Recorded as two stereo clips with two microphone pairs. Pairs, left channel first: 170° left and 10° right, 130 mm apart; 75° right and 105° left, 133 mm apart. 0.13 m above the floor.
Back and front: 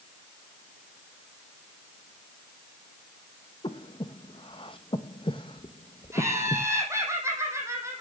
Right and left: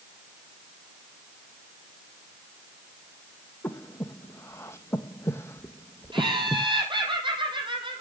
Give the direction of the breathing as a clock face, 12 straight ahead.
5 o'clock.